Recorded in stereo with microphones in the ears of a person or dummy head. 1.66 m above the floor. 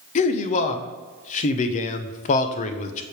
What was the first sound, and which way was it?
A man speaking, 50° left (ahead or behind).